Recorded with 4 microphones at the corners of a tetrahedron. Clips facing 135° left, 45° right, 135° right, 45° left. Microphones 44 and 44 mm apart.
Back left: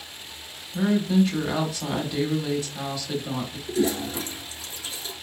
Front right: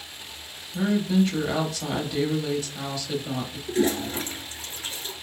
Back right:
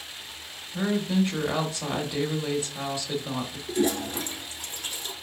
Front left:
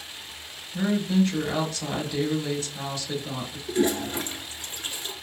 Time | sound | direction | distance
0.7 | a woman speaking | 150° right | 0.9 m
3.7 | a toilet flushing | 5° right | 1.0 m